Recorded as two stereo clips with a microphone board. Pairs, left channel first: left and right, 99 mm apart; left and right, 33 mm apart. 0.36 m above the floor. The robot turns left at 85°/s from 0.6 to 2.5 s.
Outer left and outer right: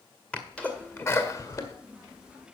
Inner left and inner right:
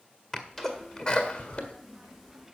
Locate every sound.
0.3 s a sneeze: 10° left (ahead or behind), 1.6 m; by 1.7 s 25° left (ahead or behind), 1.6 m